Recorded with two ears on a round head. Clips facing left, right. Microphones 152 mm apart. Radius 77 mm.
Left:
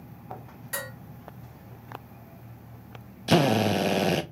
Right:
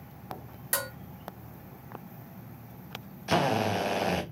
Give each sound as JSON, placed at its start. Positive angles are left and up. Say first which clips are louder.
{"t": 0.7, "sound": "dishes clattering", "louder": "right 2 dB", "side_deg": -55, "distance_m": 1.3}
{"t": 3.3, "sound": "a drill", "louder": "left 5 dB", "side_deg": 35, "distance_m": 0.5}